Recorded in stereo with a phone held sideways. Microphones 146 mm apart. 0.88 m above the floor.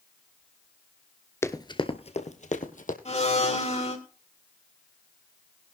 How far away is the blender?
About 2 m.